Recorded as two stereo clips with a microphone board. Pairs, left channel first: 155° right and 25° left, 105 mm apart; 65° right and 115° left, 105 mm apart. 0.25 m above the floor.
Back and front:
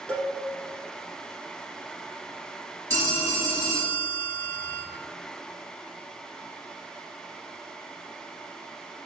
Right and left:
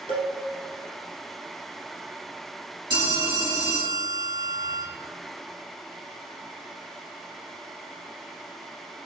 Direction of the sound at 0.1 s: 125° left.